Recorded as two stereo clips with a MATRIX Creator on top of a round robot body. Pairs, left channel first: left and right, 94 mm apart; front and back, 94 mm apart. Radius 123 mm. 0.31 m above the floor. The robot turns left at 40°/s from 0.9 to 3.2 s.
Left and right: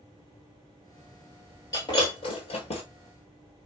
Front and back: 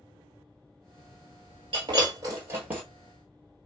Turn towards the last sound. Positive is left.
turn(degrees=85)